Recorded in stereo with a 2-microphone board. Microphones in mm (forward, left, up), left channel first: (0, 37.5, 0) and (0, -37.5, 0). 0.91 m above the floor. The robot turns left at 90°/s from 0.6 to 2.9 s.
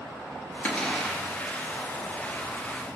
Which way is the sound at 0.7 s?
25° left.